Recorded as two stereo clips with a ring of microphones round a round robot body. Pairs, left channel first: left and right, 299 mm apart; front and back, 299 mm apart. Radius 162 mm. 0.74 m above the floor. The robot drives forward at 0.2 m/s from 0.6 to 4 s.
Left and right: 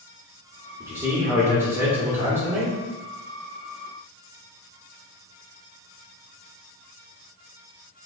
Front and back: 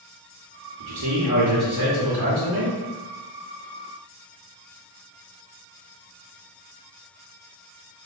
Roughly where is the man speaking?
Behind.